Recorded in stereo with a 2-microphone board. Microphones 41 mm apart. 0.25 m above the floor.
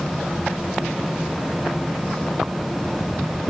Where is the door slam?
No door slam in this recording.